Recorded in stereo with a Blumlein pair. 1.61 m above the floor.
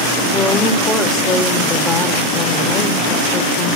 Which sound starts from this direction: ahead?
A woman speaking, at 0.3 s.